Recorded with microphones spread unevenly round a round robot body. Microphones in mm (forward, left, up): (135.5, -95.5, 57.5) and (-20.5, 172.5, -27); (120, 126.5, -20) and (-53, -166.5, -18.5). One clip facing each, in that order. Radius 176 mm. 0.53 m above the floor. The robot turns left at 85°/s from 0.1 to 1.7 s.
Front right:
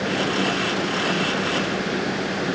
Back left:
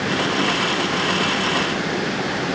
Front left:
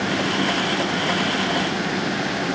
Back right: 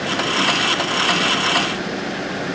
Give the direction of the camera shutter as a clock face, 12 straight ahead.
No camera shutter in this recording.